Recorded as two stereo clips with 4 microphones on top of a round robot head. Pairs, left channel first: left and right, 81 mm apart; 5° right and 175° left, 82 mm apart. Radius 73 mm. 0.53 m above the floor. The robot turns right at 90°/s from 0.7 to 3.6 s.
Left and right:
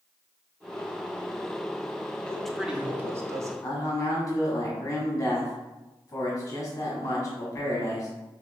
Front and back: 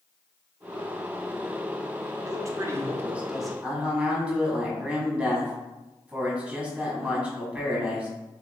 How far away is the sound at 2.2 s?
About 0.8 m.